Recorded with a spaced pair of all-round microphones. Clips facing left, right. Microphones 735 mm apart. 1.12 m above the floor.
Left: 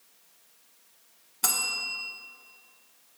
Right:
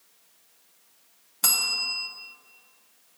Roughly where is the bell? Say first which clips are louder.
Left 1 dB; centre.